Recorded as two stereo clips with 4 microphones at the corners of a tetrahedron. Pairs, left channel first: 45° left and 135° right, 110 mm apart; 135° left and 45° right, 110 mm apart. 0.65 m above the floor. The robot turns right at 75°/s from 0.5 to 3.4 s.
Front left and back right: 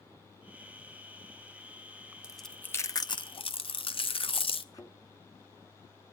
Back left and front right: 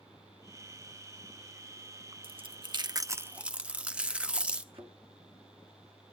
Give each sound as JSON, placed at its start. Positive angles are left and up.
{"t": 2.2, "sound": "chewing", "azimuth_deg": -55, "distance_m": 0.7}
{"t": 4.7, "sound": "a thud", "azimuth_deg": -10, "distance_m": 2.0}